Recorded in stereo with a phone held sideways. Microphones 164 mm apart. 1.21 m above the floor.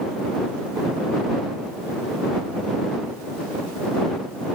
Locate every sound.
Only background noise.